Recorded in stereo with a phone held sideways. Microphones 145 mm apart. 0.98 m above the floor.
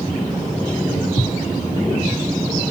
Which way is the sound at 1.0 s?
60° left (ahead or behind).